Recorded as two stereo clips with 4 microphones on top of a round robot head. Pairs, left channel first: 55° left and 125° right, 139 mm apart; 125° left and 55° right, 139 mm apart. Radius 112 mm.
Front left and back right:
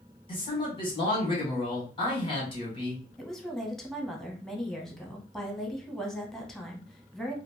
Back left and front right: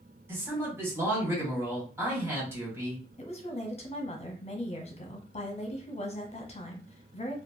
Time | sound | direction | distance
0.3 | a man speaking | 15° left | 1.5 m
3.2 | a woman speaking | 145° left | 1.0 m